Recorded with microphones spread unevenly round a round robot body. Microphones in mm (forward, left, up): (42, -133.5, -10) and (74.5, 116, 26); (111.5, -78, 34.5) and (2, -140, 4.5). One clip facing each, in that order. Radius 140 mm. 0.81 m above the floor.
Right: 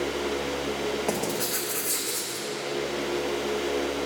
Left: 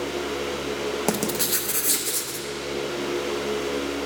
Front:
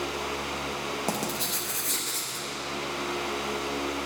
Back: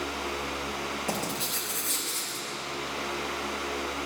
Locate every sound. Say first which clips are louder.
1.1 s writing: left 3 dB, front 1 dB; 80° left, 0.7 m